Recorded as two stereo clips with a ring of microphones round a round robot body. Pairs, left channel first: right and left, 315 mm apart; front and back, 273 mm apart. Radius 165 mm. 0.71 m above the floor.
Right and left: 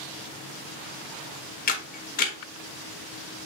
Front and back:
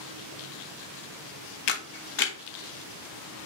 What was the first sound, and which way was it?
A camera shutter, 25° right.